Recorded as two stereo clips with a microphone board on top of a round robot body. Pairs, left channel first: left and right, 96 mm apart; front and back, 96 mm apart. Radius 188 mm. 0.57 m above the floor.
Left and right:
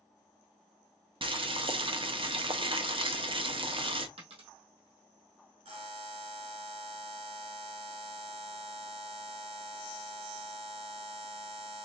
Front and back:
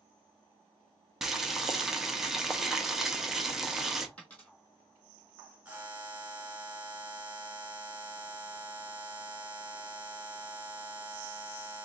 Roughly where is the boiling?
Right.